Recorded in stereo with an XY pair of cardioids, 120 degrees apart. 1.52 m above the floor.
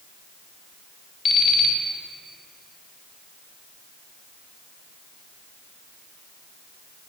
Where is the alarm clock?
40° left, 2.5 m.